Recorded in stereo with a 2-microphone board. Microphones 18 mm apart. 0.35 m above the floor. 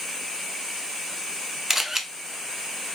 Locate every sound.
1.7 s a camera shutter: 25° right (ahead or behind), 0.7 m